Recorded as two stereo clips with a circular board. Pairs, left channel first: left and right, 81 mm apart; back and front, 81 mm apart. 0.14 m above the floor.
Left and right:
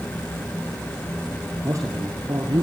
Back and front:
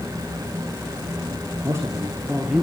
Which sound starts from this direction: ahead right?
A man speaking, at 1.6 s.